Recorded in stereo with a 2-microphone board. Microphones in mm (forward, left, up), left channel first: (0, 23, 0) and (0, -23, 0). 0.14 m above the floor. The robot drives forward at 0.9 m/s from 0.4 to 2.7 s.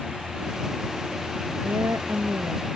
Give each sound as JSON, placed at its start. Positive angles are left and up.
{"t": 1.6, "sound": "a woman speaking", "side_deg": -80}